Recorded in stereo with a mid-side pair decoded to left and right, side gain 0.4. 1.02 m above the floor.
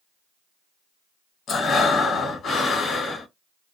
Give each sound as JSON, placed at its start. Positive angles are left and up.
{"t": 1.5, "sound": "breathing", "azimuth_deg": 60, "distance_m": 1.2}